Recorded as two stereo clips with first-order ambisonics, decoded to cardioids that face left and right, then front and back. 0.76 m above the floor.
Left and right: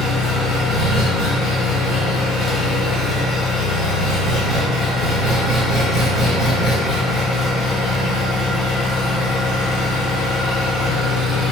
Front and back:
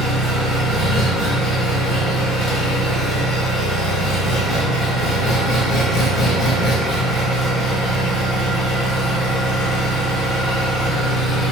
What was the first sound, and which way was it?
An engine running, 60° left.